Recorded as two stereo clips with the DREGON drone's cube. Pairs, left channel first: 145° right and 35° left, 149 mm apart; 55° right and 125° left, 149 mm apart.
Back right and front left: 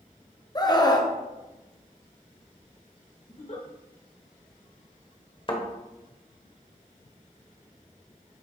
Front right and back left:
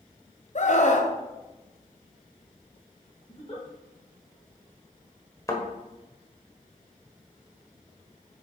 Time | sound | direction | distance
0.6 | a scream | 85° right | 1.0 m
3.3 | a giggle | 105° right | 2.0 m
5.5 | a thud | 115° right | 1.3 m